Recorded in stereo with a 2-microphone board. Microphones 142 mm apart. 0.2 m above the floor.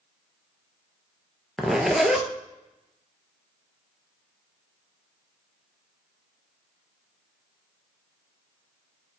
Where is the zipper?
Centre (ahead or behind), 0.5 m.